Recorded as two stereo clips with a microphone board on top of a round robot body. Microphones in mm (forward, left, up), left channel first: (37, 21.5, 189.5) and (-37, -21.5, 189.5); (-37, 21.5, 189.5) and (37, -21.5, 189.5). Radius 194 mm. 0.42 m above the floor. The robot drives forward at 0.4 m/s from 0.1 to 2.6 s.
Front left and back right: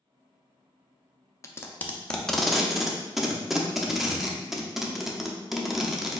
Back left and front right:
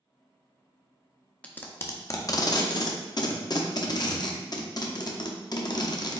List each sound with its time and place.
1.4 s tape being pulled: 80° left, 0.8 m; by 6.2 s 125° left, 0.8 m